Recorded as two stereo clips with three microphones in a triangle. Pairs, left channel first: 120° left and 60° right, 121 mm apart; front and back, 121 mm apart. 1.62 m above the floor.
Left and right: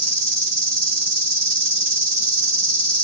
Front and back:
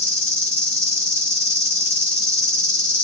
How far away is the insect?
About 2.5 m.